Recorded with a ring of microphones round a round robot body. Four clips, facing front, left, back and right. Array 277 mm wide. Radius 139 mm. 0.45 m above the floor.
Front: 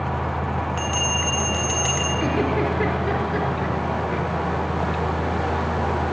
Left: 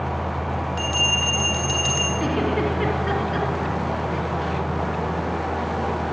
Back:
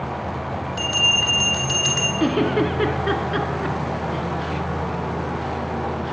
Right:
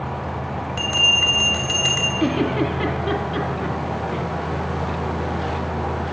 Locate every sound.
0.8 s a bell: 140° right, 2 m
2.2 s a giggle: 175° right, 3 m